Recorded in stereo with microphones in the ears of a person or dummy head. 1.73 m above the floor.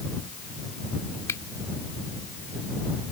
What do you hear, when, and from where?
1.3 s a finger snap: 15° left (ahead or behind)